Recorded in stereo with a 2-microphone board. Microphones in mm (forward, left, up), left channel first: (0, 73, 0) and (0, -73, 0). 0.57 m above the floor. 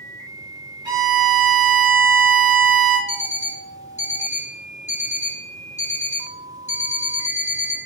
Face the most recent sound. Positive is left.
turn(degrees=50)  # may be behind; listen again after turning